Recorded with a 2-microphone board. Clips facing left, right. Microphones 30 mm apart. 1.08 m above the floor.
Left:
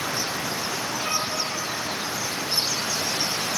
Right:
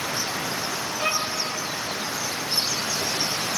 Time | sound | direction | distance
1.0 | a violin | 65° right (ahead or behind) | 5 m